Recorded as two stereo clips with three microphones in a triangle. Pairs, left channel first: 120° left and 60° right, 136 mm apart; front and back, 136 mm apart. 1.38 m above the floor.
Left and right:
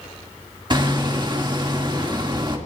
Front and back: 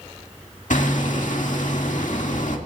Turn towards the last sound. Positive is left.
turn(degrees=-5)